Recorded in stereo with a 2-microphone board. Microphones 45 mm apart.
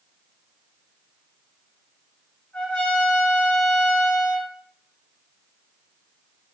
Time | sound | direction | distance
2.5 | a trumpet | 25° left (ahead or behind) | 1.5 m